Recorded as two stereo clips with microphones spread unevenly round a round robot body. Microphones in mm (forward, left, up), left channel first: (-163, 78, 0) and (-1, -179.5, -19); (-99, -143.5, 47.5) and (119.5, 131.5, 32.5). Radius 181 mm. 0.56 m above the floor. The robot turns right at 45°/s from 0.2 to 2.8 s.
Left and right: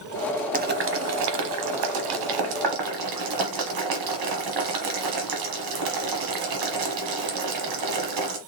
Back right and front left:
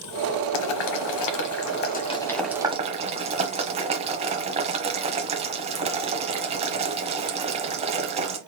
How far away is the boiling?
About 1.1 m.